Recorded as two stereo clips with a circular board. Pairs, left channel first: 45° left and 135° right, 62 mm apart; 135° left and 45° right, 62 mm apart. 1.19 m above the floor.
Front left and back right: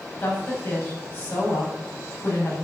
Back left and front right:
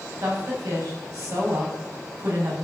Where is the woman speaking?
10° right, 8.5 m.